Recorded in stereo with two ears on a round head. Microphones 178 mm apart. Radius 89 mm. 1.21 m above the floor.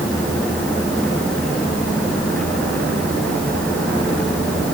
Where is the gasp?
No gasp in this recording.